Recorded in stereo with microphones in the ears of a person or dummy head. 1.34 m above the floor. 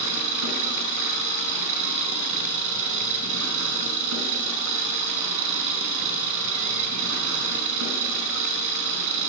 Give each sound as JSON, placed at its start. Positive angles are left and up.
{"t": 0.0, "sound": "an engine running", "side_deg": -70, "distance_m": 6.0}